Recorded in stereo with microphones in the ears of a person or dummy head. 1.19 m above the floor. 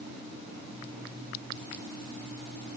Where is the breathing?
No breathing in this recording.